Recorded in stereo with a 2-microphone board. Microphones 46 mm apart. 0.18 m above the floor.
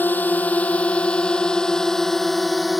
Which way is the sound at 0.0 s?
45° left (ahead or behind).